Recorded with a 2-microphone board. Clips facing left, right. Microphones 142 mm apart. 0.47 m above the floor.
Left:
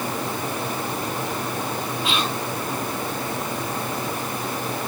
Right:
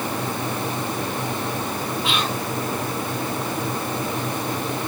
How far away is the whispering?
About 4.5 m.